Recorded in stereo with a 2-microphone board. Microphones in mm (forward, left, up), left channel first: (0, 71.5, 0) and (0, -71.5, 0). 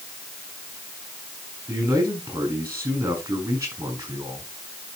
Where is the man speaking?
20° right (ahead or behind), 5.5 m.